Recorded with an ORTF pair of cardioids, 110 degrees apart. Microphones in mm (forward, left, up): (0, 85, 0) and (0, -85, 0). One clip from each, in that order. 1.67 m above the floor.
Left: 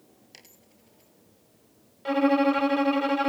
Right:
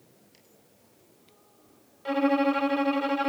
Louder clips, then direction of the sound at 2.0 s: Left 2 dB; 15° left.